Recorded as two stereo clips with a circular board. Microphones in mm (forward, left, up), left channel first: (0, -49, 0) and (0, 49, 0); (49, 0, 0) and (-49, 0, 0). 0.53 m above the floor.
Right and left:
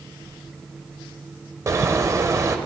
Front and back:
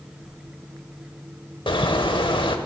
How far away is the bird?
About 0.7 m.